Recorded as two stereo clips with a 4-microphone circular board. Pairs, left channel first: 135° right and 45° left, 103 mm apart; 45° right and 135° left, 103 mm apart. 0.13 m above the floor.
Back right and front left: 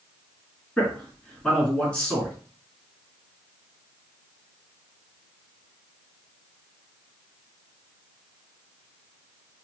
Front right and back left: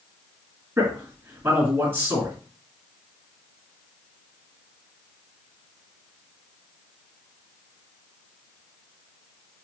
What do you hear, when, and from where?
0.8 s a man speaking: 160° left, 1.7 m